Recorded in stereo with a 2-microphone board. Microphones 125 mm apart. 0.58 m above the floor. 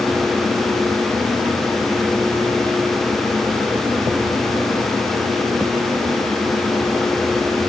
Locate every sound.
Only background noise.